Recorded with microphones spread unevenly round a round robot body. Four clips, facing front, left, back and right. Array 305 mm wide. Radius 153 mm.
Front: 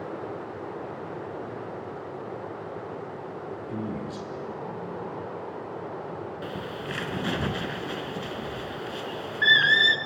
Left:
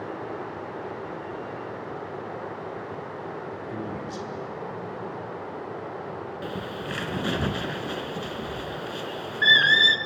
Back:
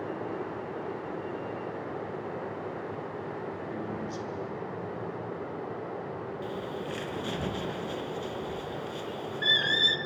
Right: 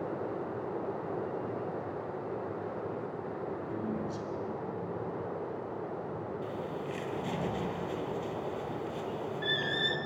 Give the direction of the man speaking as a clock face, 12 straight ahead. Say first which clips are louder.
Left 3 dB, front 2 dB; 11 o'clock.